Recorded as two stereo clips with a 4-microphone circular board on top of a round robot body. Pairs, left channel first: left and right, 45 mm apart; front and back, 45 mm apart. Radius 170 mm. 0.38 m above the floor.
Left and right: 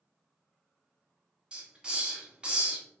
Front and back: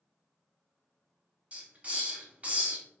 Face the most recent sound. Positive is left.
turn(degrees=-150)